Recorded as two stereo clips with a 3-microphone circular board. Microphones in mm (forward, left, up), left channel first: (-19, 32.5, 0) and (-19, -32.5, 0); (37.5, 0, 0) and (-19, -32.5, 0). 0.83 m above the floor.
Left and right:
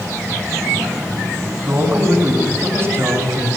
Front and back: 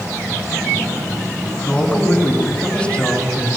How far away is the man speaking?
About 6 m.